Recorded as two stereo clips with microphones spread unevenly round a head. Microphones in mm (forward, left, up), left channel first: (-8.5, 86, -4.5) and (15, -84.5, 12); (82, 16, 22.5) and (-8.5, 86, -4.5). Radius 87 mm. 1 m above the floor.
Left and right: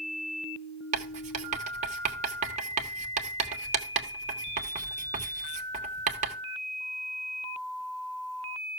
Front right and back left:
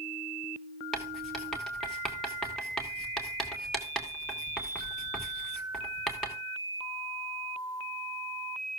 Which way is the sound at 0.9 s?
130° right.